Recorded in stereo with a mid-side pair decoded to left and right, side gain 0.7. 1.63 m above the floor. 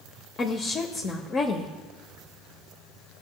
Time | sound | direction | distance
0.4 | a woman speaking | 35° left | 1.0 m